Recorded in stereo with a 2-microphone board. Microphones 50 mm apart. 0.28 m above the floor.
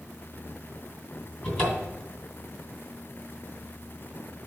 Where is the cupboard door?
15° left (ahead or behind), 2 m.